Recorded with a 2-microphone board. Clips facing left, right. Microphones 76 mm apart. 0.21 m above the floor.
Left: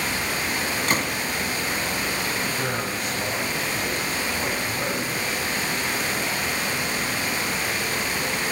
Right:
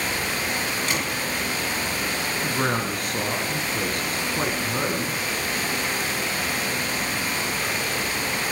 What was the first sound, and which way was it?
A gunshot, 45° left (ahead or behind).